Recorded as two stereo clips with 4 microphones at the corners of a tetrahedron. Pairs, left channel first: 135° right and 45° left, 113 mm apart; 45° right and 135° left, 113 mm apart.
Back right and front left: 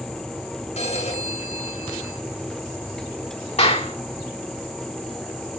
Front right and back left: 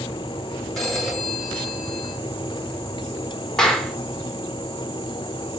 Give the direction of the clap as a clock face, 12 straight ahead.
4 o'clock.